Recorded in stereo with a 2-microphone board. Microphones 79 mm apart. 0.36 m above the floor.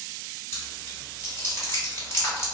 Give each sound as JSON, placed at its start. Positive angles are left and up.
{"t": 0.5, "sound": "chewing", "side_deg": 30, "distance_m": 1.5}